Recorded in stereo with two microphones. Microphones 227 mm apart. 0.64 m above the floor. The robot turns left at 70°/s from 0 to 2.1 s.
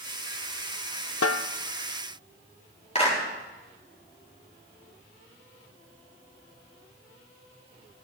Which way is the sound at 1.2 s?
85° left.